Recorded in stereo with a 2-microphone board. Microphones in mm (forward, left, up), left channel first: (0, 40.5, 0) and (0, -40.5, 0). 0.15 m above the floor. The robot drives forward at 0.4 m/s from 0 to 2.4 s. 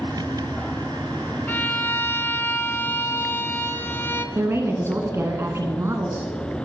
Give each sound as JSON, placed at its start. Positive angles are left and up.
{"t": 1.5, "sound": "a violin", "side_deg": 20, "distance_m": 0.9}
{"t": 4.3, "sound": "a woman speaking", "side_deg": -35, "distance_m": 1.4}